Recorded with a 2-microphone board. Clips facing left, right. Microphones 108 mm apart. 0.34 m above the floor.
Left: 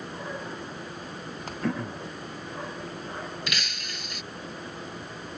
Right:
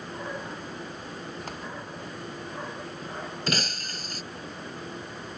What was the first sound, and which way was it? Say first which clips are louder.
Throat clearing: left 7 dB; 75° left (ahead or behind).